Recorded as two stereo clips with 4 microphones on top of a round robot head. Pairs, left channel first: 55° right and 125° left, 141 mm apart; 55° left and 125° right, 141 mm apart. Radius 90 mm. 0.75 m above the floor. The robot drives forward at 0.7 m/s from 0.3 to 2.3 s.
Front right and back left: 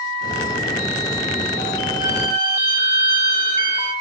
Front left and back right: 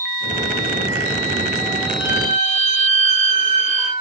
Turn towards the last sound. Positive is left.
turn(degrees=-175)